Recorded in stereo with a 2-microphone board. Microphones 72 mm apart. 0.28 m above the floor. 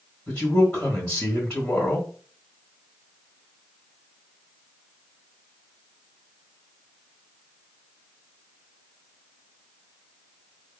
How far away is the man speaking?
About 1.1 m.